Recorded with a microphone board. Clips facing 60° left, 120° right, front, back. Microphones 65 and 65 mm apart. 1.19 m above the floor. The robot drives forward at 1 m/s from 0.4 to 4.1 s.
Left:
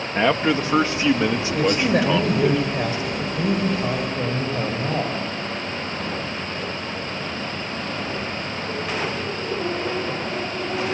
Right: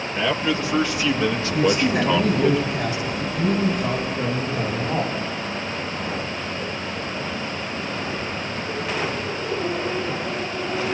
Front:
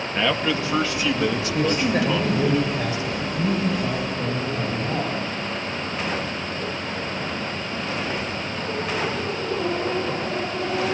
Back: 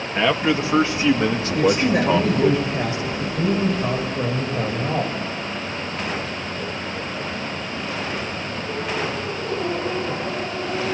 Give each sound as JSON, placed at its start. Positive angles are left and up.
{"t": 0.1, "sound": "a man speaking", "azimuth_deg": 105, "distance_m": 2.0}
{"t": 1.5, "sound": "a man speaking", "azimuth_deg": 95, "distance_m": 4.5}